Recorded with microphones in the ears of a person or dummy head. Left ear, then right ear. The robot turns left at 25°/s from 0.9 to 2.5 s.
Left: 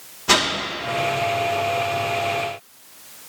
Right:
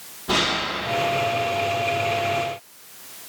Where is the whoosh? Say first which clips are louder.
Left 3 dB; 60° left (ahead or behind), 1.9 m.